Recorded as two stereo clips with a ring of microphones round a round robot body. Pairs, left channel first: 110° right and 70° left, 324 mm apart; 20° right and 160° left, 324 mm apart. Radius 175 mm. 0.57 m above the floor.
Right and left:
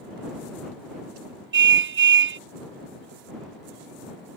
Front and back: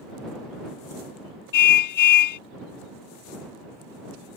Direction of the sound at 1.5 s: 10° left.